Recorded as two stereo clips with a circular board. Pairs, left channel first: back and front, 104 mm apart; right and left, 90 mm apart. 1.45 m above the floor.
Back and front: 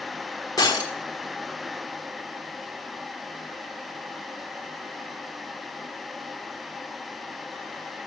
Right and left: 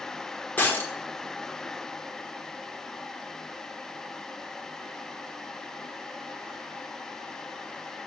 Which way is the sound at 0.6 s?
150° right.